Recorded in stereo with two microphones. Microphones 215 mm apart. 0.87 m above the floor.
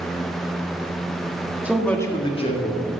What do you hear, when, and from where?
1.6 s a man speaking: 5° right (ahead or behind), 1.5 m; by 2.9 s 35° left (ahead or behind), 2.5 m